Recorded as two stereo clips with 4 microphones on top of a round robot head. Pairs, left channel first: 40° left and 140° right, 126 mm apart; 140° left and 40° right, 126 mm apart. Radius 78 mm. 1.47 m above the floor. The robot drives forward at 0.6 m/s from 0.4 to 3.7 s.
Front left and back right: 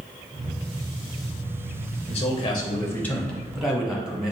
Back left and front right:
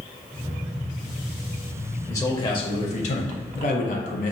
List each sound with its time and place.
2.1 s a man speaking: 75° left, 0.9 m; by 4.3 s 130° left, 1.1 m